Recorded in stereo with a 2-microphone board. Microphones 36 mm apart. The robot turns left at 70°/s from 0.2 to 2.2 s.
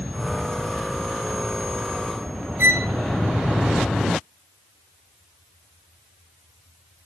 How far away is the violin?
About 0.8 m.